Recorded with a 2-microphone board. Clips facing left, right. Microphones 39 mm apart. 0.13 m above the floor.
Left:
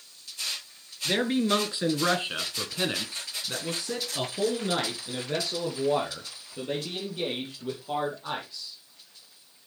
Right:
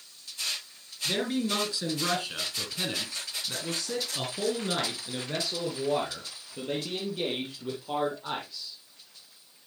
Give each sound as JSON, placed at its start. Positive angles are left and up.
{"t": 1.1, "sound": "a man speaking", "side_deg": 30, "distance_m": 2.5}